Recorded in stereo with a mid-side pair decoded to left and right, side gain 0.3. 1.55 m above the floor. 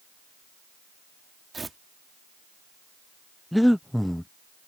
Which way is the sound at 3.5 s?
5° left.